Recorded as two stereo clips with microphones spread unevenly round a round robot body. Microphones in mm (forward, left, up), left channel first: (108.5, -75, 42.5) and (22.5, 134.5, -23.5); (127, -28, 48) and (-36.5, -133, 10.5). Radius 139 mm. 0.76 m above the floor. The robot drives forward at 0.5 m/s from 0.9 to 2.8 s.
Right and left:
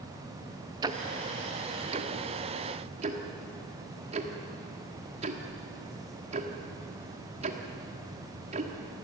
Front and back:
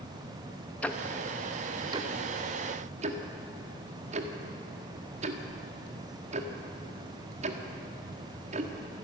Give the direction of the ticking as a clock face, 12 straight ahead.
8 o'clock.